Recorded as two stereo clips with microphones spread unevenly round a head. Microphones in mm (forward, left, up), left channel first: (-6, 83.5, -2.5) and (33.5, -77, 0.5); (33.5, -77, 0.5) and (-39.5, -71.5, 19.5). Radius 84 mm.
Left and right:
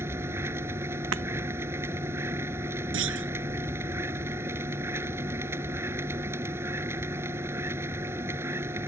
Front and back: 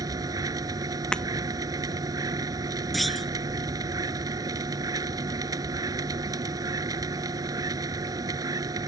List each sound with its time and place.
0.0 s a machine running: 155° right
1.1 s breaking glass: 85° right
2.9 s a clunk: 95° right